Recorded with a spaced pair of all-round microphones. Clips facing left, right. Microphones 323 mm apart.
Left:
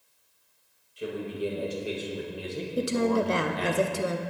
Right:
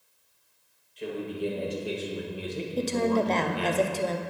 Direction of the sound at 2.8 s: 15° left (ahead or behind).